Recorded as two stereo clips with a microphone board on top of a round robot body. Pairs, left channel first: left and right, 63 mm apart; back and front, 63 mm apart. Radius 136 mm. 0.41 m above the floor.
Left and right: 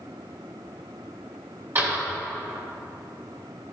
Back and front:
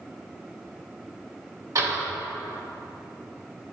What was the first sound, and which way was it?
A door slam, 40° right.